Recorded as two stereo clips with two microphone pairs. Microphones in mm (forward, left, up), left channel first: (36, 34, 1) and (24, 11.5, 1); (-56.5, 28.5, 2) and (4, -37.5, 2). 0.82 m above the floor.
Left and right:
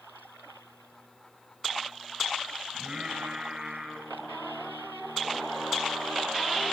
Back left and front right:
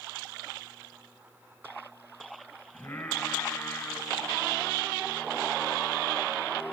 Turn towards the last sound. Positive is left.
turn(degrees=-160)